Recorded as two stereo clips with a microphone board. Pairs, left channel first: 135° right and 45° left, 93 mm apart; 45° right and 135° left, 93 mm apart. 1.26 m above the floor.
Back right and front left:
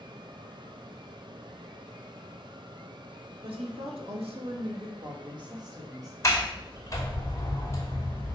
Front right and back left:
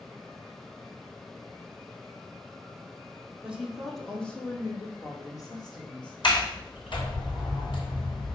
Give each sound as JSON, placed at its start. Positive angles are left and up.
{"t": 3.4, "sound": "a woman speaking", "azimuth_deg": 55, "distance_m": 2.0}
{"t": 6.2, "sound": "a sliding door", "azimuth_deg": -75, "distance_m": 2.5}